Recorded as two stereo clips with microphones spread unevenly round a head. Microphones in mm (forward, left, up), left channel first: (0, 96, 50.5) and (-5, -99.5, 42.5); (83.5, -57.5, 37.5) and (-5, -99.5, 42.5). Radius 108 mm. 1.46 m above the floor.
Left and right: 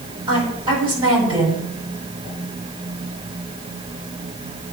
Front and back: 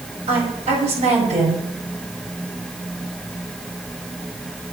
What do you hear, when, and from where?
0.3 s a woman speaking: 160° right, 4.5 m